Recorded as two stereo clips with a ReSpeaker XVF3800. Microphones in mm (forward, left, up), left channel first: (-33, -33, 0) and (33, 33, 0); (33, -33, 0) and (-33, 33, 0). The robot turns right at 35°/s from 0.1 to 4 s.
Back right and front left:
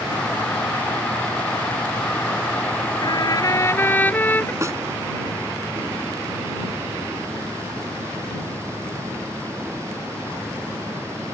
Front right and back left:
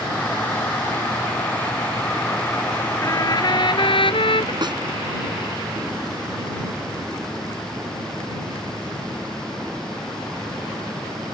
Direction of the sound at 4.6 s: 100° left.